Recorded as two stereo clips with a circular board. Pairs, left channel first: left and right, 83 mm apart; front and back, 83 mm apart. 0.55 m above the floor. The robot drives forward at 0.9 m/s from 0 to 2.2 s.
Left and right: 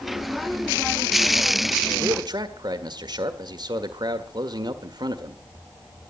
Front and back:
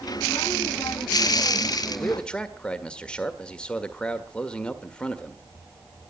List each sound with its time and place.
2.0 s a man speaking: 70° right, 1.7 m; by 5.4 s 75° right, 1.6 m